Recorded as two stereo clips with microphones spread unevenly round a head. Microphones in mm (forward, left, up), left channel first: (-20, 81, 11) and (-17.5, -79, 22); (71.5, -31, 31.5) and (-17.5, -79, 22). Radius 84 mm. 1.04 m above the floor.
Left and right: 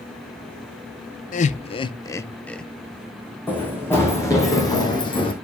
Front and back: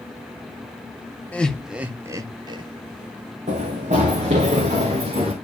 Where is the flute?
No flute in this recording.